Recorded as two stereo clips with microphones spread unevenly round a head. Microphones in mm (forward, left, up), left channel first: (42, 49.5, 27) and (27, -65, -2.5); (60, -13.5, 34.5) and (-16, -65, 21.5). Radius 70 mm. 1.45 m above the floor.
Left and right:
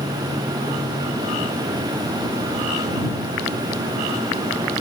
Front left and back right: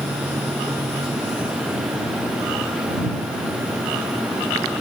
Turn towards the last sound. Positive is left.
No sound to turn to.